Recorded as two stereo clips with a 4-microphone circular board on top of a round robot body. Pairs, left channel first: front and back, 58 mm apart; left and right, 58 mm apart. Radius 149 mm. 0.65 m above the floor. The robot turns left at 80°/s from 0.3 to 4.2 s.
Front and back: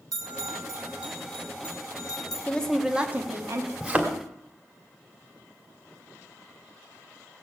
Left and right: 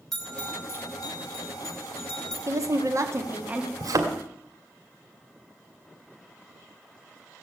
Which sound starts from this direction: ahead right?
A woman speaking, at 2.5 s.